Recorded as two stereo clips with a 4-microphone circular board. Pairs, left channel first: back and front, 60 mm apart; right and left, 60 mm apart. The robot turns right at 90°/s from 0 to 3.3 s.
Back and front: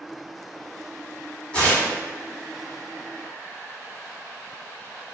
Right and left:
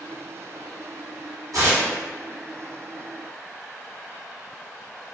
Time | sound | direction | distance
1.5 | tearing paper | 110° left | 1.5 m